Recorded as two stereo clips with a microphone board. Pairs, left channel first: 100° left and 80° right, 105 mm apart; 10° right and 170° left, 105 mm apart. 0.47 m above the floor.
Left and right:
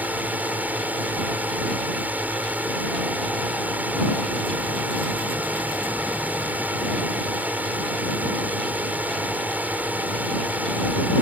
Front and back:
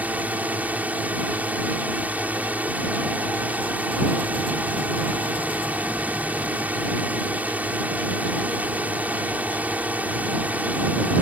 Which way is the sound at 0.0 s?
135° right.